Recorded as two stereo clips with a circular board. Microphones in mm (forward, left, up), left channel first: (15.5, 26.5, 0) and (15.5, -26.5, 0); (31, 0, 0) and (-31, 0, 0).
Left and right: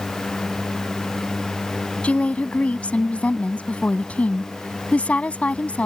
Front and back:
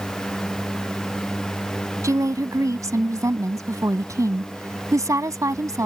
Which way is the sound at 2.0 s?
155° left.